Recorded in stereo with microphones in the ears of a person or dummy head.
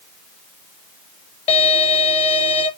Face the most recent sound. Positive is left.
turn(degrees=35)  # may be behind; listen again after turning